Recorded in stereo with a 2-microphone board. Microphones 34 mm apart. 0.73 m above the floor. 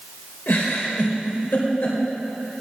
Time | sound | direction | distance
0.5 | a giggle | 80° left | 1.8 m